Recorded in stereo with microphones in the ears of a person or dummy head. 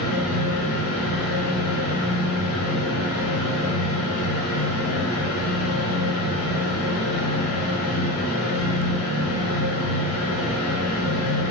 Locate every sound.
0.0 s a fan: 75° left (ahead or behind), 0.9 m